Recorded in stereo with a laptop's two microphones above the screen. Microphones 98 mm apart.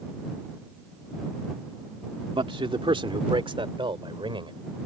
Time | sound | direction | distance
2.3 | a man speaking | 65° right (ahead or behind) | ?